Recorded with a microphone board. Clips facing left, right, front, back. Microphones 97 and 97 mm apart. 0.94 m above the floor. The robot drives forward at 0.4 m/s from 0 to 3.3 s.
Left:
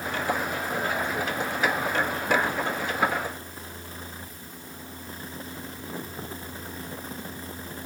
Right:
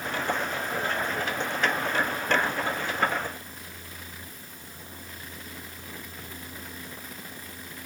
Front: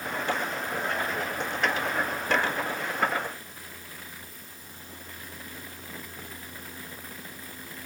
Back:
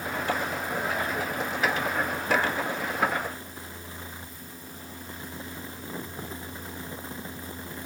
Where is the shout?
No shout in this recording.